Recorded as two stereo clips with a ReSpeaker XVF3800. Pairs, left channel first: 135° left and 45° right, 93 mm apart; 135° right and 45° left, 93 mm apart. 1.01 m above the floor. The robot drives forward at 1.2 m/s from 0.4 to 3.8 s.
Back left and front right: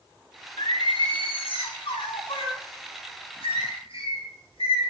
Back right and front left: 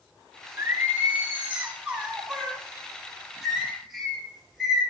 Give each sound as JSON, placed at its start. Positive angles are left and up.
{"t": 0.6, "sound": "singing", "azimuth_deg": 105, "distance_m": 4.5}